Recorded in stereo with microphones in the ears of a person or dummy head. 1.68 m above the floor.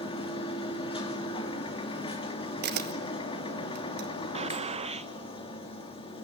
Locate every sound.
0.0 s a machine running: 30° left (ahead or behind), 2.5 m
2.6 s a camera shutter: 55° right (ahead or behind), 1.3 m
4.3 s a gunshot: 35° right (ahead or behind), 0.8 m